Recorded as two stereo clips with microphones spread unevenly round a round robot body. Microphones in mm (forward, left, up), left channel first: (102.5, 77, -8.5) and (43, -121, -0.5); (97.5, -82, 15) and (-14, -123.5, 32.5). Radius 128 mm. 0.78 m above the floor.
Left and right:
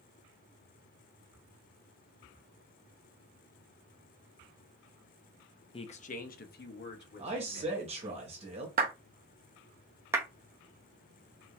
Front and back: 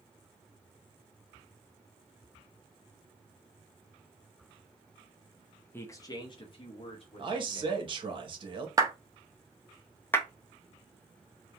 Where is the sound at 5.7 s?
45° left, 0.5 m.